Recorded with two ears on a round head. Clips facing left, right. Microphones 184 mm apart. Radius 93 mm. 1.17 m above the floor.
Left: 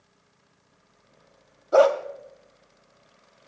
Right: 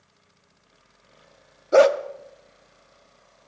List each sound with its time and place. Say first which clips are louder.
1.7 s a dog barking: right 2 dB; 25° right (ahead or behind), 0.7 m